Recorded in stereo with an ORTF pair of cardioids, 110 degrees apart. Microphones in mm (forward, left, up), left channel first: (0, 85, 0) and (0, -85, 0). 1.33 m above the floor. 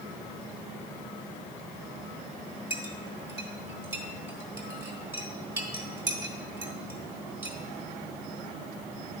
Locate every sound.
2.7 s a clink: 15° right, 2.5 m